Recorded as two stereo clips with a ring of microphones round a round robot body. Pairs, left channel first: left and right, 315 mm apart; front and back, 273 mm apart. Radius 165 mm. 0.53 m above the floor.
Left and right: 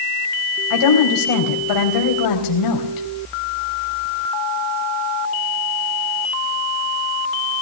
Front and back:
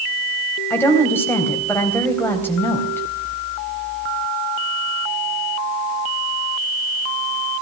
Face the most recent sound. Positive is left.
turn(degrees=80)